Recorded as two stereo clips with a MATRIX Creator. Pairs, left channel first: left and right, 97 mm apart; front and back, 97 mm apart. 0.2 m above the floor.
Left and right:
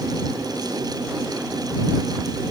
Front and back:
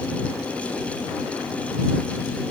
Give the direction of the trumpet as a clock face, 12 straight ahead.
No trumpet in this recording.